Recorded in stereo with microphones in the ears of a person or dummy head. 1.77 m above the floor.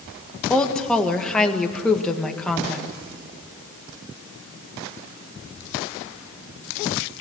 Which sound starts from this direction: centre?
A woman speaking, at 0.5 s.